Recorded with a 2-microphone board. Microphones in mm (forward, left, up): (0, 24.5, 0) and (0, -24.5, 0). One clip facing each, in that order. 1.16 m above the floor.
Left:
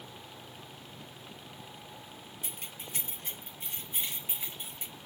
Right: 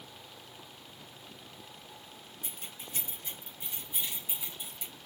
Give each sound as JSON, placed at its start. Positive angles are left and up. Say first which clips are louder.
{"t": 2.4, "sound": "keys jangling", "louder": "left 1 dB", "side_deg": 75, "distance_m": 1.2}